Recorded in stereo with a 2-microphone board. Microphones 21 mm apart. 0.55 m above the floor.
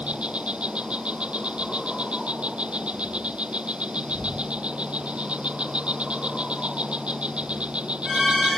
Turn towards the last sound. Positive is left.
turn(degrees=-75)  # may be behind; listen again after turning